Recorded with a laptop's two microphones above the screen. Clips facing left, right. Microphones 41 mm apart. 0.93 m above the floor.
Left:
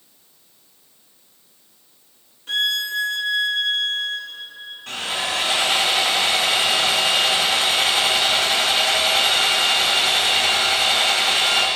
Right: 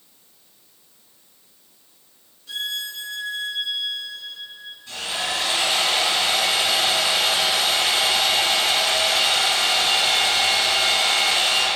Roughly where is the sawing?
Left.